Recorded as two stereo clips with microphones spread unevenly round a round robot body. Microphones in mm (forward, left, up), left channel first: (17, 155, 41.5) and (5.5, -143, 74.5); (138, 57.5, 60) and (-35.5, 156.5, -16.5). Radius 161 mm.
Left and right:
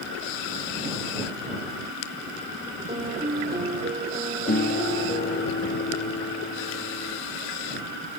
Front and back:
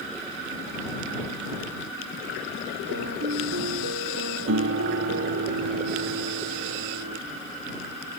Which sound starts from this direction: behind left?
A guitar, at 4.5 s.